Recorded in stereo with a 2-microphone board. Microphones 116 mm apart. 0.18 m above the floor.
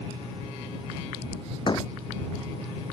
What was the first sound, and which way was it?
A door slam, 40° left (ahead or behind).